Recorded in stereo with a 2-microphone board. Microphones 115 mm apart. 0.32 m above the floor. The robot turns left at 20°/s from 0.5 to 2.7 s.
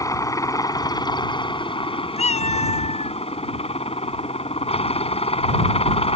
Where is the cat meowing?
80° left; by 3.2 s 75° left (ahead or behind).